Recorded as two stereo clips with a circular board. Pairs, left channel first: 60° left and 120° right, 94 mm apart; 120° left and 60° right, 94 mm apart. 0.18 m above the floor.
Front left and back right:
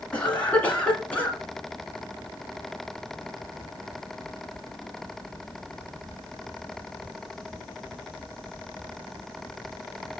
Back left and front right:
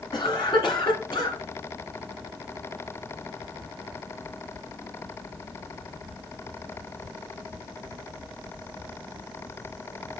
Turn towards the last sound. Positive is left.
turn(degrees=130)